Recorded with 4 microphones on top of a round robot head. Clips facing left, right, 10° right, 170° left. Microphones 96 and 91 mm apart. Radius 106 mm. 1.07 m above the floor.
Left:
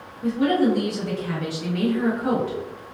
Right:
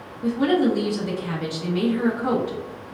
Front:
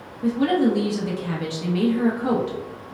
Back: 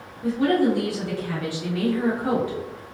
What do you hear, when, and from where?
0.2 s a woman speaking: 10° right, 0.9 m